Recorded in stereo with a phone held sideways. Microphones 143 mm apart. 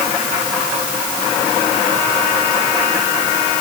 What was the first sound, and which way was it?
Only background noise.